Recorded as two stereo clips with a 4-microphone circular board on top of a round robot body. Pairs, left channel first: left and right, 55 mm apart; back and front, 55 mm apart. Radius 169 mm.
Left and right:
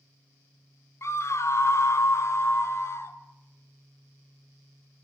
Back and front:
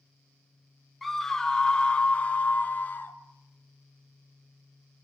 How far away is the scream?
About 1.7 m.